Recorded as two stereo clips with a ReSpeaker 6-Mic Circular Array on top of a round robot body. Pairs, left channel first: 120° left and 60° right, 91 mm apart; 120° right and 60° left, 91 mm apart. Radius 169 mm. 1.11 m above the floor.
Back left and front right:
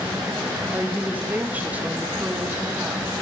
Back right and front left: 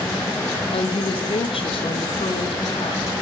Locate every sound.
0.7 s a woman speaking: 135° right, 2 m